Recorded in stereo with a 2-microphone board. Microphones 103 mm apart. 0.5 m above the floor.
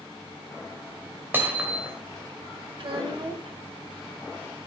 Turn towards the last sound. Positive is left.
turn(degrees=-55)  # may be behind; listen again after turning